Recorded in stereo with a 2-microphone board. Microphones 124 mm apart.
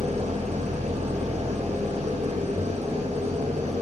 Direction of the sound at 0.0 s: 60° right (ahead or behind).